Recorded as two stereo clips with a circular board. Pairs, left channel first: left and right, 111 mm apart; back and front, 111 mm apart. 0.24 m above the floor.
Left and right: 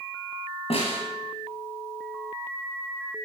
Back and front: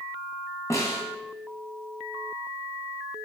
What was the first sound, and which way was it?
A snare drum, 115° left.